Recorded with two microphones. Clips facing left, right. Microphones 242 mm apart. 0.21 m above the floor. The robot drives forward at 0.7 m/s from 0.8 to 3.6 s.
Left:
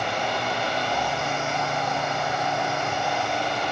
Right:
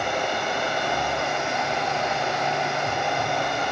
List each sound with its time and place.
0.0 s running water: 55° right (ahead or behind), 1.6 m; by 3.7 s 50° right (ahead or behind), 1.7 m